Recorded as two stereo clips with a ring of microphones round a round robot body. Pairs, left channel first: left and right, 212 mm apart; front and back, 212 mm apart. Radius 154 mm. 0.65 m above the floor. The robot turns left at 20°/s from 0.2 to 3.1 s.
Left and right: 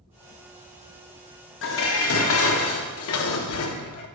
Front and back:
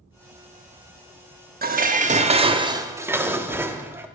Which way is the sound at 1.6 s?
130° left.